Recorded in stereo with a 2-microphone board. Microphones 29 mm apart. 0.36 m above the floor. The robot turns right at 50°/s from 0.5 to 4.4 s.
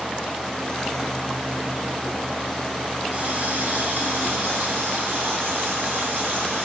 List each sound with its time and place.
3.1 s a running tap: 140° right, 9.5 m; by 6.7 s 75° right, 9.5 m